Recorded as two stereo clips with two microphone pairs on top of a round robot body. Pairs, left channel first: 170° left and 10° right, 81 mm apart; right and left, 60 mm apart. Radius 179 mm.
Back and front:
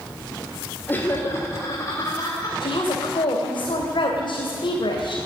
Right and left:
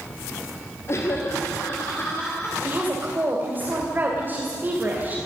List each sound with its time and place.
0.9 s laughter: 120° right, 3 m; by 2.5 s 145° right, 4.5 m
2.6 s a woman speaking: 150° left, 3.5 m